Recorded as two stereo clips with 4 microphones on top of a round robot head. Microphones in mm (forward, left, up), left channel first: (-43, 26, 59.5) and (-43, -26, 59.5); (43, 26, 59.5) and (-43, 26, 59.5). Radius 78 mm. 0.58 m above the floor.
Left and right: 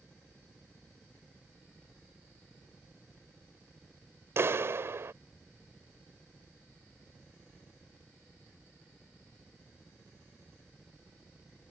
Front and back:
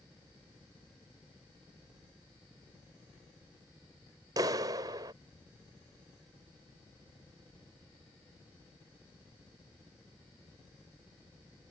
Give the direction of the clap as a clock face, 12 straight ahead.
4 o'clock.